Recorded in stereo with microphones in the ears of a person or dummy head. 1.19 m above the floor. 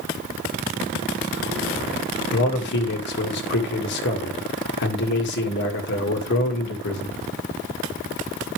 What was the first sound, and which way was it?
A man speaking, 55° left (ahead or behind).